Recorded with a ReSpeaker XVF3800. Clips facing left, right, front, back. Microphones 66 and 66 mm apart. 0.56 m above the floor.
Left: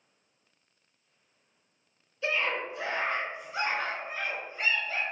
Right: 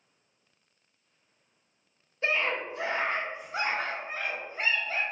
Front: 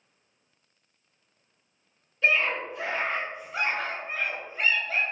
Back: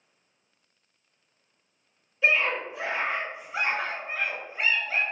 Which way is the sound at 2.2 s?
100° right.